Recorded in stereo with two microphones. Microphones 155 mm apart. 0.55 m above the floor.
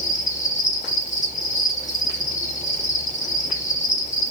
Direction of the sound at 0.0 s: 50° left (ahead or behind).